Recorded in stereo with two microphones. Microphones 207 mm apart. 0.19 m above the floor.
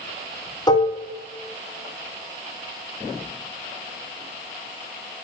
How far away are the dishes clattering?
About 1.2 m.